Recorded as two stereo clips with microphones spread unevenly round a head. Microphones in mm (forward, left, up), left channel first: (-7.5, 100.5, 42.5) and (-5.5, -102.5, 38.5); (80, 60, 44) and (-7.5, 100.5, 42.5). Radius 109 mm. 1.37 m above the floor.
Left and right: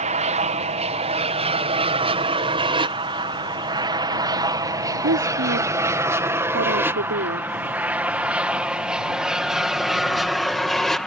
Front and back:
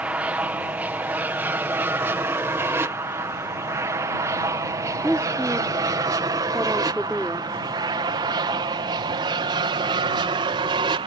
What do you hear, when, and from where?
0.0 s an aircraft: 130° right; by 11.1 s straight behind
5.0 s a woman speaking: 120° right